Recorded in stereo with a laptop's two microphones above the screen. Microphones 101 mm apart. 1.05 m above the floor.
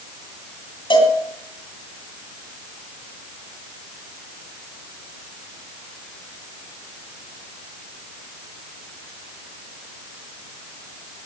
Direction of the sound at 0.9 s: 50° left (ahead or behind).